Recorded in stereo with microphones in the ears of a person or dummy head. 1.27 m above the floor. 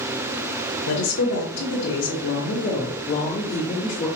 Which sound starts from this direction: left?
A woman speaking, at 0.9 s.